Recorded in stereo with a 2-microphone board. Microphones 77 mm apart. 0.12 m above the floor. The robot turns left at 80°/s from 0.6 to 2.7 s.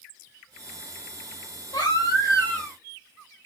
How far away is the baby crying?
About 2.5 m.